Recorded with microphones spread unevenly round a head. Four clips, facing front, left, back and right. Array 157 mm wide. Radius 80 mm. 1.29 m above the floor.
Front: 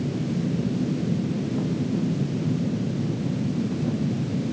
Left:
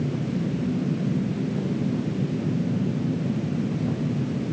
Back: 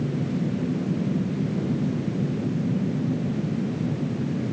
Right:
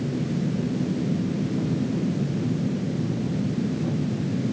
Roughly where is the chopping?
I don't hear chopping.